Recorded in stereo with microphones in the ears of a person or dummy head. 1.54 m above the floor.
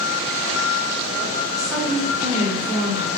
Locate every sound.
1.5 s a woman speaking: 20° right (ahead or behind), 1.6 m